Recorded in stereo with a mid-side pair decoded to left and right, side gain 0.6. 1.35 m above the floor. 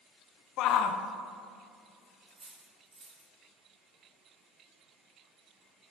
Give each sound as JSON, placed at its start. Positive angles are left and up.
{"t": 0.6, "sound": "a shout", "azimuth_deg": 65, "distance_m": 0.5}
{"t": 2.3, "sound": "cutlery clinking", "azimuth_deg": -30, "distance_m": 1.9}